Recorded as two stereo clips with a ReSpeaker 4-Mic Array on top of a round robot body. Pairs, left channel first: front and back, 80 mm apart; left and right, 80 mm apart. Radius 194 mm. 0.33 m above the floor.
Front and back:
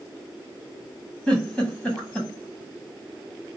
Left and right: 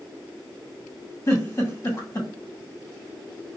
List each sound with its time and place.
1.3 s a giggle: 70° left, 1.7 m